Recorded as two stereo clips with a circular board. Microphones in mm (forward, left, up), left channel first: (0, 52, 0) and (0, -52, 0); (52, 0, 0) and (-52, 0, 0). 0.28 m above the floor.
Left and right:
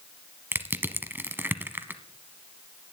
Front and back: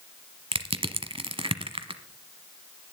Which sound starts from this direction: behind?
Crushing, at 0.5 s.